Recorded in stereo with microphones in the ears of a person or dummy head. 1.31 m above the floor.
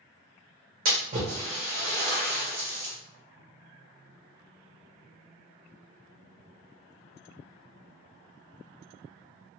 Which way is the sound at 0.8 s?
45° right (ahead or behind).